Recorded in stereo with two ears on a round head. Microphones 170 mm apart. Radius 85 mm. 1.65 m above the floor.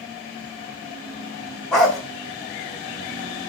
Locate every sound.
1.7 s a dog barking: 5° left (ahead or behind), 3 m